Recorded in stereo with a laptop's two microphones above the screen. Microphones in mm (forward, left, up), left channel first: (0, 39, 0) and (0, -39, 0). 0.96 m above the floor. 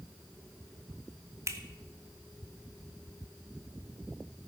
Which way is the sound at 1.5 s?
40° right (ahead or behind).